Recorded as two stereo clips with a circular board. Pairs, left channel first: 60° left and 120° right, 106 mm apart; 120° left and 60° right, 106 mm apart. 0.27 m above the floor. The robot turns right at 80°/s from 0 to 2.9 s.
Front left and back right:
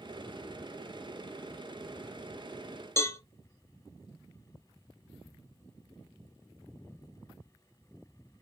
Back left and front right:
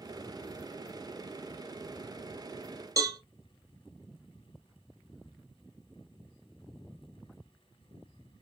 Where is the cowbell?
5° right, 0.5 m.